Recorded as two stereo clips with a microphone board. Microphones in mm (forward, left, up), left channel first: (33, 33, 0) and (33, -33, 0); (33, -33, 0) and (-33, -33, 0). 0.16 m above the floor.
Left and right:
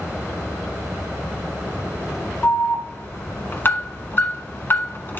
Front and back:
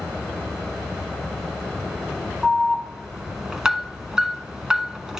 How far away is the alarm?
About 1.1 m.